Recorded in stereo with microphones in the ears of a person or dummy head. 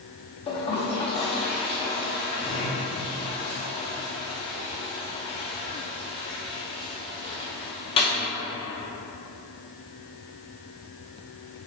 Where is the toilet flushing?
35° left (ahead or behind), 0.7 m.